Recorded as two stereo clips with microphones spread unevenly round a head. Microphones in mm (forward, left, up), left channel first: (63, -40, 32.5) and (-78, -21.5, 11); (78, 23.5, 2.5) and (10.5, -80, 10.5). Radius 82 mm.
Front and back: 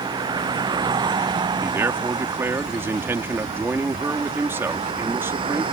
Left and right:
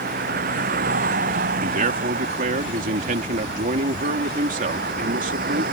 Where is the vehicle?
125° right; by 5.7 s 130° right.